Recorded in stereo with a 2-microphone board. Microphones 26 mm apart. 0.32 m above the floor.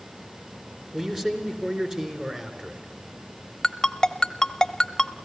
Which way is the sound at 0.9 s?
20° right (ahead or behind).